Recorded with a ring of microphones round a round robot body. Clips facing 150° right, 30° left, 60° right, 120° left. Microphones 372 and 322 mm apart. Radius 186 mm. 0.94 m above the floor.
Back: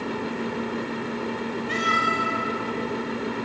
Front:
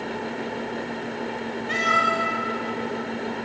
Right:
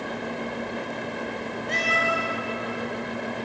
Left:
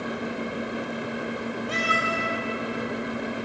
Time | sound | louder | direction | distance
1.7 | a cat meowing | even, even | 40° left | 1.8 m